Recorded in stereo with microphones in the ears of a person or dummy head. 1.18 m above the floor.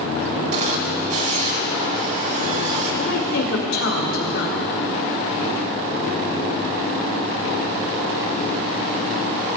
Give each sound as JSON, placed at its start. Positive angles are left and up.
{"t": 0.5, "sound": "a camera shutter", "side_deg": -45, "distance_m": 2.0}
{"t": 2.9, "sound": "a woman speaking", "side_deg": 75, "distance_m": 2.5}